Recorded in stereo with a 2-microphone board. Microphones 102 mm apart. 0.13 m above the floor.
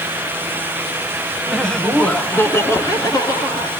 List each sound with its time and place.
1.5 s laughter: centre (ahead or behind), 1.4 m; by 3.7 s 40° left (ahead or behind), 2 m